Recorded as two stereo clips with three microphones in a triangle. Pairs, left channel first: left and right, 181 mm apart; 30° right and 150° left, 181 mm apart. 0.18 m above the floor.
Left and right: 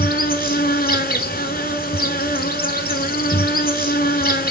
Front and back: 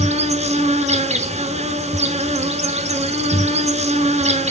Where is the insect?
110° left, 0.9 m.